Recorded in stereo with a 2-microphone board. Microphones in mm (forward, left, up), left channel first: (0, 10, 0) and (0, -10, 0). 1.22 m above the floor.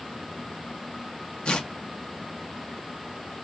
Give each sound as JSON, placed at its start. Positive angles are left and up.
{"t": 1.4, "sound": "tearing paper", "side_deg": 55, "distance_m": 0.6}